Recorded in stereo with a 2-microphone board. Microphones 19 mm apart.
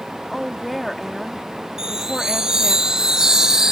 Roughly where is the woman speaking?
Centre.